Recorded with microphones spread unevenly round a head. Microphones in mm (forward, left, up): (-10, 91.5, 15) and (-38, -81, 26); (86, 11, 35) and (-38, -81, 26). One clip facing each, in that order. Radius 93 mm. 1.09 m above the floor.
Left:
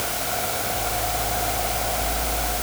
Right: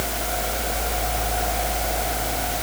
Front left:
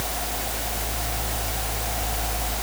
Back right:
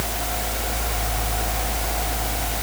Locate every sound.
Only background noise.